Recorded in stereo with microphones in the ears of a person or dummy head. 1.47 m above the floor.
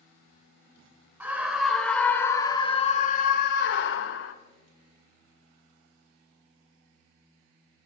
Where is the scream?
15° right (ahead or behind), 2 m; by 4.3 s 80° left, 1.9 m.